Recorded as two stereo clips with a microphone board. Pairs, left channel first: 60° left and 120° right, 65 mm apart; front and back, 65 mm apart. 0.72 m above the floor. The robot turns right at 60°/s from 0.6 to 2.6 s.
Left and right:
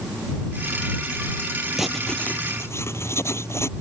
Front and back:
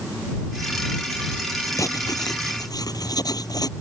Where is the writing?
35° right; by 3.7 s 15° left.